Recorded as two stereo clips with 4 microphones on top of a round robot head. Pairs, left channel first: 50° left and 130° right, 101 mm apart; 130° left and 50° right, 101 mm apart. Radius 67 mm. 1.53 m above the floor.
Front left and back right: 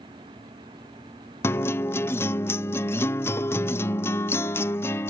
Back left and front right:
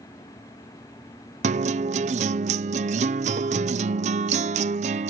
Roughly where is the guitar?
Ahead.